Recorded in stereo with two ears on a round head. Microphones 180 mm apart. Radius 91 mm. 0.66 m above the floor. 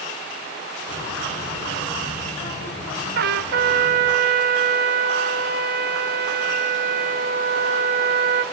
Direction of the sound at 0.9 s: 40° left (ahead or behind).